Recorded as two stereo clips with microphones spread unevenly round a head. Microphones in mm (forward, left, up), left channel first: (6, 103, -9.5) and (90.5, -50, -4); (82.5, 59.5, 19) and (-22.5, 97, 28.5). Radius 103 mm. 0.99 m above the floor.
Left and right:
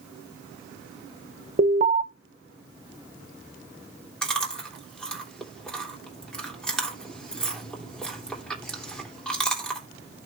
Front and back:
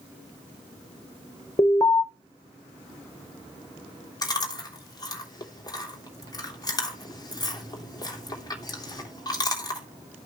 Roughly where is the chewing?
Ahead left.